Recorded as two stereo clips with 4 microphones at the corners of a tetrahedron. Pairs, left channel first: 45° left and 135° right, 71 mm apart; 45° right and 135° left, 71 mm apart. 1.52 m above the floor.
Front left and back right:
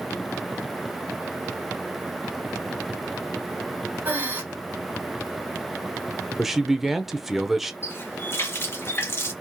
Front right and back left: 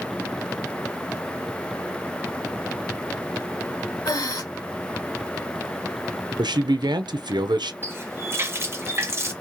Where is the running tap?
90° left, 1.1 m.